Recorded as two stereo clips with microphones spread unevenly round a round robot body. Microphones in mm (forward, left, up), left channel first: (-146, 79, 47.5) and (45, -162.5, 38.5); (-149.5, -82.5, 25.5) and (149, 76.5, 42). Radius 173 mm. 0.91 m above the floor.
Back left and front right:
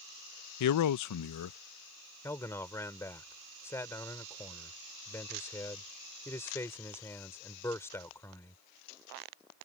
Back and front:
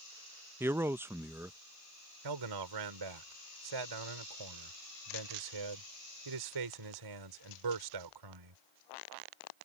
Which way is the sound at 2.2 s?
45° left.